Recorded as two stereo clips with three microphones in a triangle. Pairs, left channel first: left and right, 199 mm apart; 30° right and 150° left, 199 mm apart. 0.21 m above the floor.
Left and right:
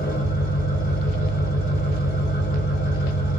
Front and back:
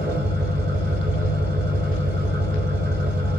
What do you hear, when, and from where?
0.0 s an engine running: 125° left, 1.0 m